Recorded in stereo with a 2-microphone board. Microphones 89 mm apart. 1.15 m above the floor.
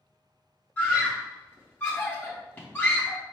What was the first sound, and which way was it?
A scream, 20° left (ahead or behind).